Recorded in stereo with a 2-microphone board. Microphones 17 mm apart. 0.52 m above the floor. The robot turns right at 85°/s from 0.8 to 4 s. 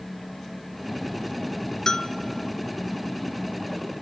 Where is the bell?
40° left (ahead or behind), 0.7 m.